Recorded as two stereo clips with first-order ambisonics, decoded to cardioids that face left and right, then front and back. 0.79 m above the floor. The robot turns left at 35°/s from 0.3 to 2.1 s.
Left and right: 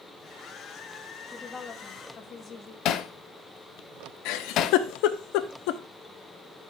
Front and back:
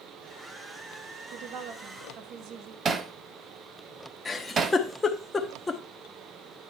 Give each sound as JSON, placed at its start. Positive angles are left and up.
{"t": 1.3, "sound": "a woman speaking", "azimuth_deg": 175, "distance_m": 1.0}
{"t": 2.9, "sound": "hammering", "azimuth_deg": 120, "distance_m": 0.6}
{"t": 4.2, "sound": "a giggle", "azimuth_deg": 75, "distance_m": 0.8}